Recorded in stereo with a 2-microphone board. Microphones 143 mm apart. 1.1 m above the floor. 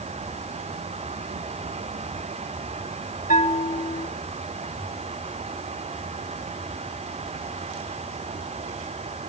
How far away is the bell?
About 2 m.